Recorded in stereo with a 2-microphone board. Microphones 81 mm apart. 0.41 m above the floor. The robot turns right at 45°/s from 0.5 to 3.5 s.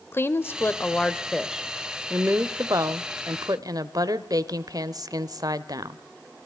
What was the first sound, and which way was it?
A woman speaking, 140° left.